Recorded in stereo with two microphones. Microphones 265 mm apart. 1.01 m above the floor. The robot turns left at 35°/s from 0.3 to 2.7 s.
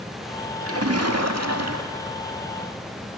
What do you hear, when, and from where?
0.6 s a splash: 60° right, 2 m; by 2.2 s 115° right, 2 m